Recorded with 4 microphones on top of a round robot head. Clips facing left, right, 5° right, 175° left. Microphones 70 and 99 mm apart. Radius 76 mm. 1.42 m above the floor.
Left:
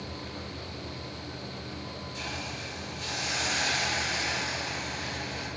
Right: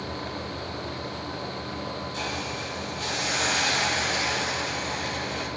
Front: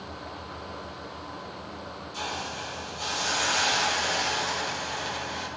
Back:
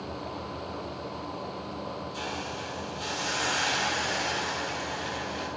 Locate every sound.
2.1 s a hiss: 60° right, 5 m